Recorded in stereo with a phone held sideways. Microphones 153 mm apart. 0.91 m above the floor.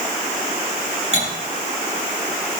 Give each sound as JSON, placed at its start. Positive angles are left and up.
{"t": 1.1, "sound": "cutlery clinking", "side_deg": -45, "distance_m": 8.0}